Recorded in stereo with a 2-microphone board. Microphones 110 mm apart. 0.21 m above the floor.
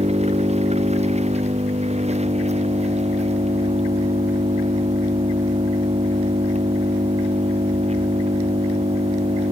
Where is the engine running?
70° right (ahead or behind).